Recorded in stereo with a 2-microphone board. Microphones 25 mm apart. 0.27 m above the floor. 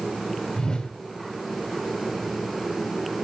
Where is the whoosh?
25° left (ahead or behind), 1.7 m.